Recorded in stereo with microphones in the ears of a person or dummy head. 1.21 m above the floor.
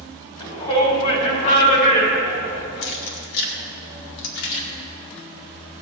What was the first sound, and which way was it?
A shout, 25° left (ahead or behind).